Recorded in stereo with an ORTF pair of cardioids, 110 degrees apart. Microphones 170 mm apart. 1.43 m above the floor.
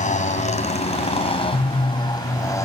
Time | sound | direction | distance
0.0 | a motorcycle | 50° left | ?